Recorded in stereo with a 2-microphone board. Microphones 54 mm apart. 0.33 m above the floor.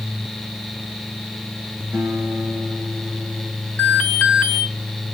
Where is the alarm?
25° left (ahead or behind), 3 m.